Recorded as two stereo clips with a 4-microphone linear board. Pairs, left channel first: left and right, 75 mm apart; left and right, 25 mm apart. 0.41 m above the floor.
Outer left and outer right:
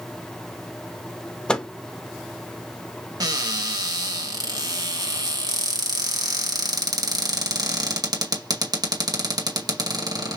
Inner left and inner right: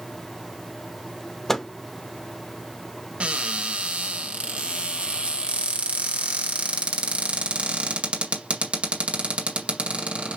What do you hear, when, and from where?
1.5 s a microwave: 10° left (ahead or behind), 0.6 m
3.2 s a cupboard door: 60° right (ahead or behind), 1.8 m